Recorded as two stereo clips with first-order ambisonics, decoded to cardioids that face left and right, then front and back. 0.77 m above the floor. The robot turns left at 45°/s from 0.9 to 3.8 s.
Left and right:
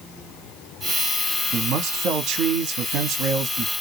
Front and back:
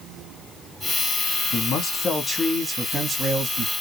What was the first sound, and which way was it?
A man speaking, 45° right.